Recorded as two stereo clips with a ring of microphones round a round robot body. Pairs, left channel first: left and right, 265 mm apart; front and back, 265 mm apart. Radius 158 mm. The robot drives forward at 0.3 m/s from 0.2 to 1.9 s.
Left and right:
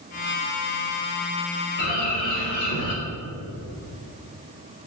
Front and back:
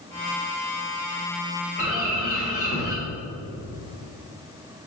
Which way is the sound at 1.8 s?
100° left.